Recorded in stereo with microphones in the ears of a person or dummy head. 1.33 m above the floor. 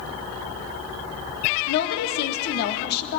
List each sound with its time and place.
1.7 s a woman speaking: 55° left (ahead or behind), 0.8 m